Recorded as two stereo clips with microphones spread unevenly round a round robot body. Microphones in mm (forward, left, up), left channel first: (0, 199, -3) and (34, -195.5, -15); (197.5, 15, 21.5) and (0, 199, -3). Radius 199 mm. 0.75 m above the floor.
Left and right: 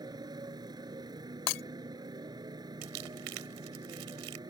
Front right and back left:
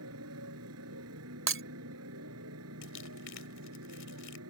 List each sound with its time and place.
0.0 s a motorcycle: 165° right
1.5 s breaking glass: 95° left
2.8 s crumpling: 90° right